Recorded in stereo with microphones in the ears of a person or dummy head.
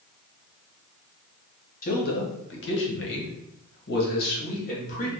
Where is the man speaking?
40° left (ahead or behind), 1.0 m; by 5.1 s 45° left (ahead or behind), 1.9 m.